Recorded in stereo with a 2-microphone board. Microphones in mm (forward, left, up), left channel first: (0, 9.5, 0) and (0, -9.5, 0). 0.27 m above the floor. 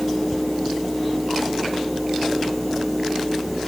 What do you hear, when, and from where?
Only background noise.